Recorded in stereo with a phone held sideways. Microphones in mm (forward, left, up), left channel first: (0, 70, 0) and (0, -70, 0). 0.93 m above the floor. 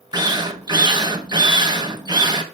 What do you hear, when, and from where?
0.1 s a drill: 30° right (ahead or behind), 1.2 m